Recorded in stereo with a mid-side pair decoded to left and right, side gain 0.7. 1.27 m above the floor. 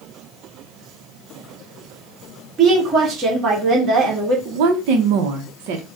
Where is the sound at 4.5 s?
70° right, 0.8 m.